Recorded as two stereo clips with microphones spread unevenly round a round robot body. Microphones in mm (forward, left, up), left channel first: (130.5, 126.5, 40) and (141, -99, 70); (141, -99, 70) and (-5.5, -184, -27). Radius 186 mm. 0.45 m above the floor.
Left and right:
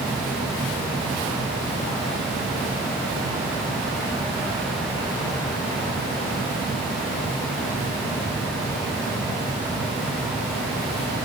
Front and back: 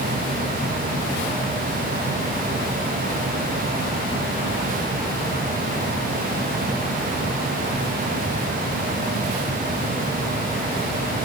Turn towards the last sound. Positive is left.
No sound to turn to.